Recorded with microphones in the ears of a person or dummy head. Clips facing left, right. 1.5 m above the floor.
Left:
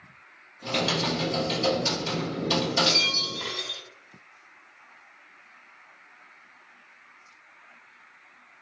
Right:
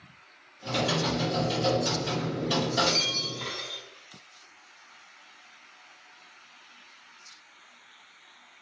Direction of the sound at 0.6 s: 35° left (ahead or behind).